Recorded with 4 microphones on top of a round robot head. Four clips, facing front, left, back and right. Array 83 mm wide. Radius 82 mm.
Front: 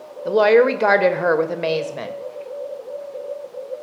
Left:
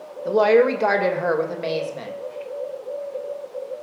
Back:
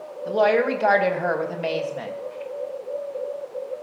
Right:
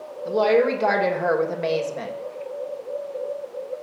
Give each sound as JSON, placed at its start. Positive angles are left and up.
{"t": 0.2, "sound": "a woman speaking", "azimuth_deg": 25, "distance_m": 2.0}